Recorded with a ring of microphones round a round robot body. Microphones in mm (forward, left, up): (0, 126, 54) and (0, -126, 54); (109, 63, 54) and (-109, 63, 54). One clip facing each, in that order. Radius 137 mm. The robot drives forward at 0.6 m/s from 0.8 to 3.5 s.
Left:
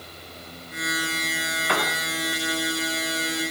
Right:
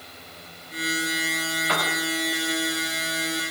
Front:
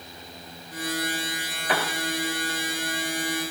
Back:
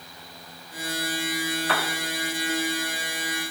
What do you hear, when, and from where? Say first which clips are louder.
1.7 s a piano: left 3 dB, front 1 dB; 75° left, 2.5 m; by 2.0 s 80° left, 2.5 m